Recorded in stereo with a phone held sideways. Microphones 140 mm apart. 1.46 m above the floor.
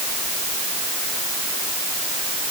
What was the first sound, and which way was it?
Only background noise.